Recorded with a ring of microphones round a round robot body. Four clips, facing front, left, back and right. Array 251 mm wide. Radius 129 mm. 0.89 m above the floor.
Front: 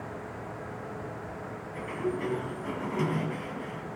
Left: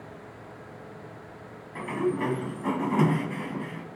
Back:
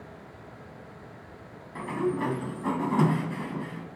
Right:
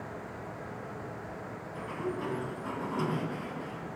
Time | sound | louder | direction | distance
1.8 | a sliding door | left 8 dB, back 4 dB | 135° left | 3 m